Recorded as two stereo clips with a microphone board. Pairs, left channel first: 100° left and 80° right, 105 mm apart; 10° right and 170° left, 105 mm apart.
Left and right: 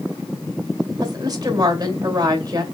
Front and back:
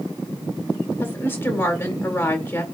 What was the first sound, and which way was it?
A woman speaking, 65° right.